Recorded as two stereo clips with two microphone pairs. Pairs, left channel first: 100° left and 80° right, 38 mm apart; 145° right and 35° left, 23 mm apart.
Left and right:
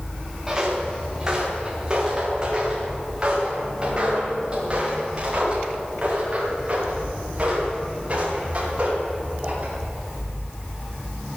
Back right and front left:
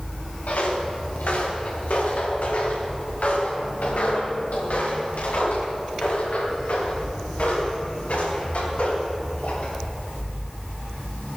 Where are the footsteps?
150° right, 8 m; by 9.7 s 130° right, 19 m.